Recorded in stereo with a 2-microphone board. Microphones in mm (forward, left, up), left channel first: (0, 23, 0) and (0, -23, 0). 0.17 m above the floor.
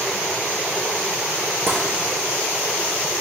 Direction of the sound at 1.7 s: 45° right (ahead or behind).